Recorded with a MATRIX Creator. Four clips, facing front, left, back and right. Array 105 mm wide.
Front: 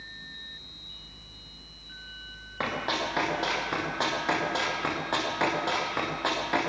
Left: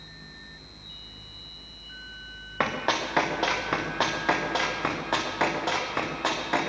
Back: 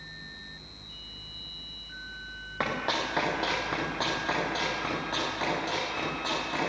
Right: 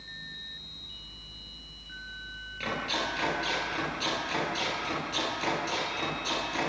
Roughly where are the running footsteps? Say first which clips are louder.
Left 6 dB, even; left.